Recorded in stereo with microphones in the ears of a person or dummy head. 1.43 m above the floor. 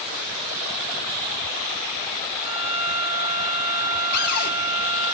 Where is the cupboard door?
50° left (ahead or behind), 2.5 m.